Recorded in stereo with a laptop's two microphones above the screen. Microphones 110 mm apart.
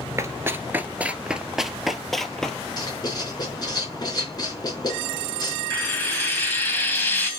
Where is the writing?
40° left (ahead or behind), 4.5 m.